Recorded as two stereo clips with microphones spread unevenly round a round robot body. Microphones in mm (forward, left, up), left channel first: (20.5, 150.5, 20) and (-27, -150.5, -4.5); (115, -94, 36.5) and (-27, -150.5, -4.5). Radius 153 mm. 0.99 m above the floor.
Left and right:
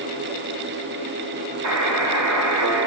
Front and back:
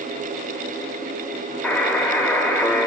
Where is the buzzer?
60° right, 4.5 m.